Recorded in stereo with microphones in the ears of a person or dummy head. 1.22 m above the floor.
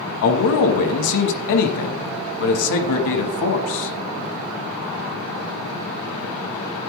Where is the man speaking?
65° left (ahead or behind), 1.1 m.